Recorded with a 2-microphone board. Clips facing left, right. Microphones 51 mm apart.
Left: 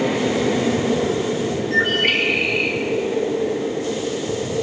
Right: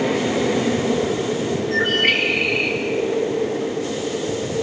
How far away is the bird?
About 5 m.